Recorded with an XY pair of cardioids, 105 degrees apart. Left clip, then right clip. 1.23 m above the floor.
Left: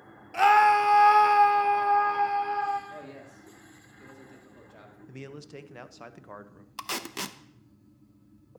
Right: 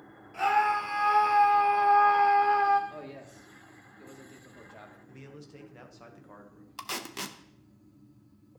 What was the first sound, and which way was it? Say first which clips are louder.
A scream: left 6 dB; 65° left.